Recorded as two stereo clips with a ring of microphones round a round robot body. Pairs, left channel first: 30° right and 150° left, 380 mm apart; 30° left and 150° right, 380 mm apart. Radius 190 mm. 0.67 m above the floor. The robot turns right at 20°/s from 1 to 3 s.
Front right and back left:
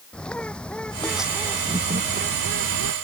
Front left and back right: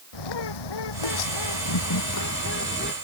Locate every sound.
0.1 s a bird: 55° left; by 2.9 s 95° left